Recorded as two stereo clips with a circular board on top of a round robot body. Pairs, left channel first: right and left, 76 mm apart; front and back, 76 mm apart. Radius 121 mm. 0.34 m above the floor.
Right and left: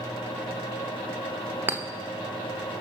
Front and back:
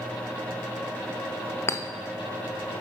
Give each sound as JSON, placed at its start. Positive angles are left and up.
{"t": 1.7, "sound": "a clink", "azimuth_deg": 40, "distance_m": 1.0}